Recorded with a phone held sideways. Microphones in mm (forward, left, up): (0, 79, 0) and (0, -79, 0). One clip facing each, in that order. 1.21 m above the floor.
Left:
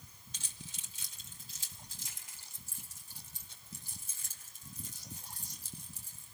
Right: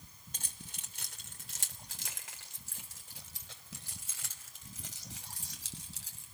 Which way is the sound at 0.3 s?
50° right (ahead or behind).